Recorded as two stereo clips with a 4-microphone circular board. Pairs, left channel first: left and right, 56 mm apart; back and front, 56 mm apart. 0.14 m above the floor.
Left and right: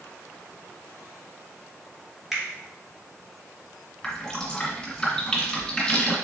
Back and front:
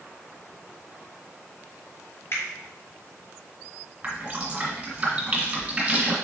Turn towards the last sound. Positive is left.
turn(degrees=30)